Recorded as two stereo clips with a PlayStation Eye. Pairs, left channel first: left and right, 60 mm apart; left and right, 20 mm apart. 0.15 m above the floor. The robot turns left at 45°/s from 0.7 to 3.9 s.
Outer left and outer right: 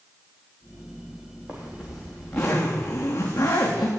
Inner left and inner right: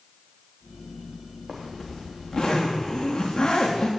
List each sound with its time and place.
1.5 s a zipper: 155° right, 4 m; by 3.9 s 95° left, 4 m